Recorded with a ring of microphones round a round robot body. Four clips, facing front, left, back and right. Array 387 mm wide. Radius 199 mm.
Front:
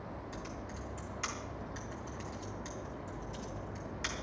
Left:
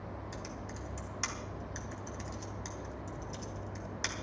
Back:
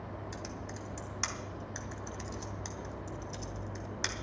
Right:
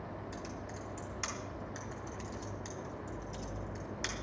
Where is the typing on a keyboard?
160° left, 3 m.